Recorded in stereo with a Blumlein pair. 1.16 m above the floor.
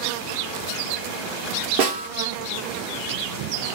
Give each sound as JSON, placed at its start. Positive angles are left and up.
{"t": 1.8, "sound": "a snare drum", "azimuth_deg": -50, "distance_m": 0.8}